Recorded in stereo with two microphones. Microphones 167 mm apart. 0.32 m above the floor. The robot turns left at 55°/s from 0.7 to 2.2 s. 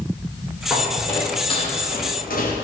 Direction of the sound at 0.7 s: 5° right (ahead or behind).